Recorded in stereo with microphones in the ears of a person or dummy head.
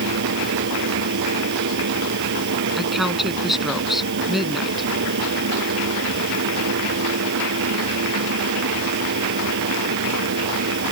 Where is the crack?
I don't hear a crack.